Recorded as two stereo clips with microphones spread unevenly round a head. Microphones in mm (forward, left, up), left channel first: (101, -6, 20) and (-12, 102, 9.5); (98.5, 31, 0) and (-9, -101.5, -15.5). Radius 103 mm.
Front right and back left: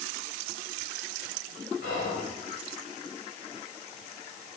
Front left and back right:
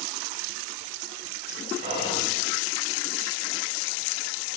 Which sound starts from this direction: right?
Whispering, at 1.8 s.